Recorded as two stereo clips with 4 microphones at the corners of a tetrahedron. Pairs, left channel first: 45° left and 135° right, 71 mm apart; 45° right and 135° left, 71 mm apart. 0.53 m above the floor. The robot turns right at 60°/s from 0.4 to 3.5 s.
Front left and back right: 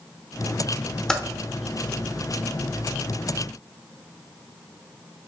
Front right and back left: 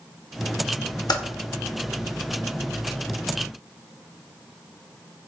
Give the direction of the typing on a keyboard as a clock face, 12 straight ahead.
1 o'clock.